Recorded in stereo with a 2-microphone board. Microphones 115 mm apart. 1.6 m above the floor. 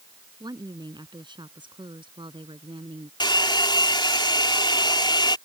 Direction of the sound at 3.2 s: 40° left (ahead or behind).